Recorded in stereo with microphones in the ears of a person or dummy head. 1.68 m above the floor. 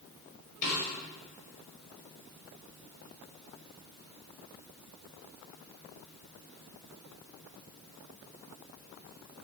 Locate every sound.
0.6 s a snare drum: 35° left (ahead or behind), 1.3 m